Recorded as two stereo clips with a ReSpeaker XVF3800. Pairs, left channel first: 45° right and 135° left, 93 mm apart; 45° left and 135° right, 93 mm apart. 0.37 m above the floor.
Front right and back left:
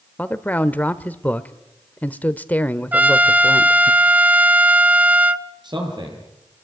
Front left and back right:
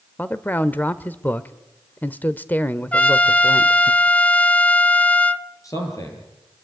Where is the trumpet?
95° left, 0.9 m.